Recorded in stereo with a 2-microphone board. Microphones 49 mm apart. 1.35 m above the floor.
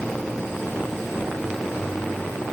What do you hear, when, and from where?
Only background noise.